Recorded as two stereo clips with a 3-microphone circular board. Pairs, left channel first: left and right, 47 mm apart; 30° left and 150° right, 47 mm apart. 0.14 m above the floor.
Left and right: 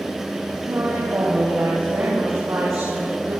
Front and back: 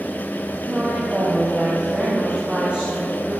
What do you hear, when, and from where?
0.6 s a woman speaking: 80° right, 8 m